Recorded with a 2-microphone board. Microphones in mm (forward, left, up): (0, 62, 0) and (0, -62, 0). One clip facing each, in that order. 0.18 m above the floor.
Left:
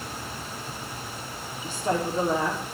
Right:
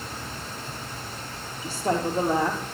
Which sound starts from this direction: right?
A woman speaking, at 1.6 s.